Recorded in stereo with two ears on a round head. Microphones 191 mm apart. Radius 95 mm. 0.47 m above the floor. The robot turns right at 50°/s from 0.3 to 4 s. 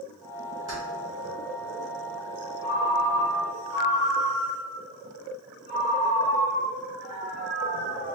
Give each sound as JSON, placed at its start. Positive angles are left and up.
{"t": 0.7, "sound": "keys jangling", "side_deg": -15, "distance_m": 2.0}
{"t": 2.6, "sound": "a ringtone", "azimuth_deg": 50, "distance_m": 1.5}